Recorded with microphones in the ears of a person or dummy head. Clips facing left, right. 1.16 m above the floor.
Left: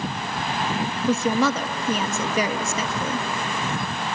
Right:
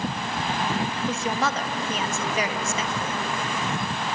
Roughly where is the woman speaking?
Left.